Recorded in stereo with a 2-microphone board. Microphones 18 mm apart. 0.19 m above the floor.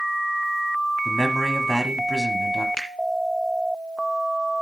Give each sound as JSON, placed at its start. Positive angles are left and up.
{"t": 1.1, "sound": "a man speaking", "side_deg": -10, "distance_m": 1.4}
{"t": 2.8, "sound": "a finger snap", "side_deg": 50, "distance_m": 2.0}